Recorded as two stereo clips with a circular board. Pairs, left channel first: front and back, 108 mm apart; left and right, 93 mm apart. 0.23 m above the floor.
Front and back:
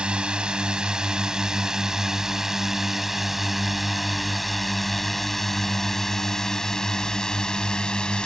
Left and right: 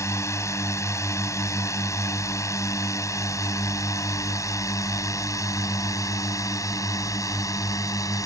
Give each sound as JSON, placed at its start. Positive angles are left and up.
{"t": 0.0, "sound": "a drone", "azimuth_deg": 105}